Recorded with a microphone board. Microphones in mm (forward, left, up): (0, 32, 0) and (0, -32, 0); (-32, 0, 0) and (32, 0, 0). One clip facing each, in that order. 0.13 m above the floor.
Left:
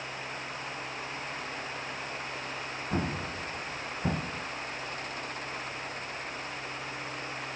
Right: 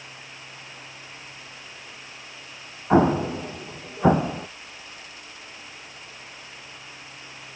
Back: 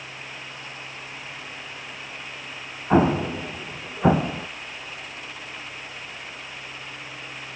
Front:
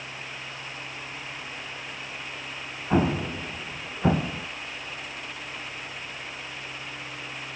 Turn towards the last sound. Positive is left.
turn(degrees=-120)